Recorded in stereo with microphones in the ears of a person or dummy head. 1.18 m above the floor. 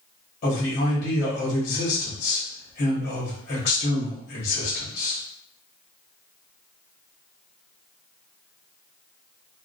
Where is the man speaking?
45° left (ahead or behind), 1.1 m.